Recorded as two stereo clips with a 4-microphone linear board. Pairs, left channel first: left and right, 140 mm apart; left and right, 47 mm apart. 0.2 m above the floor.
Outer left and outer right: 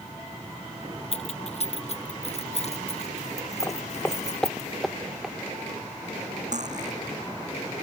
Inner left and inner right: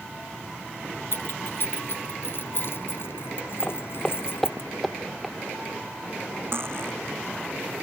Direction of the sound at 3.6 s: 20° left (ahead or behind).